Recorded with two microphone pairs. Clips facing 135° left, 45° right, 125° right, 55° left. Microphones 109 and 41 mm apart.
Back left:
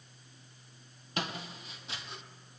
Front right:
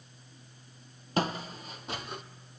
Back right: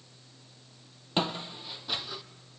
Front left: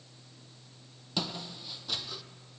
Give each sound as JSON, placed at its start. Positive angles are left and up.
{"t": 1.2, "sound": "footsteps", "azimuth_deg": -80, "distance_m": 1.2}